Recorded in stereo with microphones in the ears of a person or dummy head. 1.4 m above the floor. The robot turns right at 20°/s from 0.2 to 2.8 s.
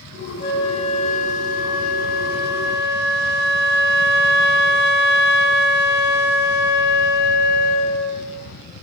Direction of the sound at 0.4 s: 40° left.